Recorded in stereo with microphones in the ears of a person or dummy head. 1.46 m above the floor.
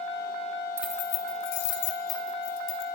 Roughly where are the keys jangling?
Centre.